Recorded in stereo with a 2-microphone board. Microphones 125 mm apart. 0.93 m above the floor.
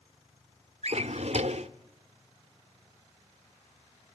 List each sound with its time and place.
0.8 s a drawer: 60° right (ahead or behind), 0.8 m